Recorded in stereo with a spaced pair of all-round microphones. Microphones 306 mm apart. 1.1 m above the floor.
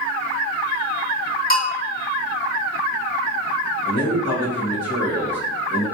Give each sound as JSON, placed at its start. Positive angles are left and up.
{"t": 1.5, "sound": "a bell", "side_deg": 30, "distance_m": 0.9}
{"t": 3.9, "sound": "a man speaking", "side_deg": 50, "distance_m": 2.0}